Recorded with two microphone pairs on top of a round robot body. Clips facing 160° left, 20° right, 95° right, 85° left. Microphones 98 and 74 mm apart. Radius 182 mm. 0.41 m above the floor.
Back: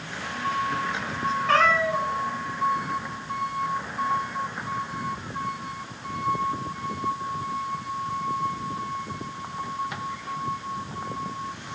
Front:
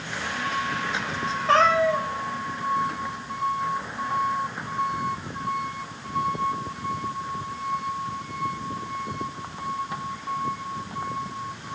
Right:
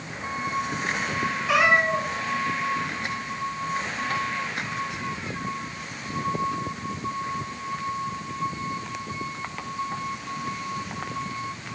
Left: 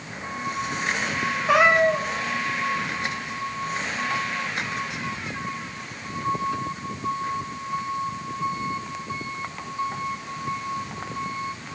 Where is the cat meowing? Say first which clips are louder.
Front 3 dB, left 3 dB; 40° left, 1.4 m.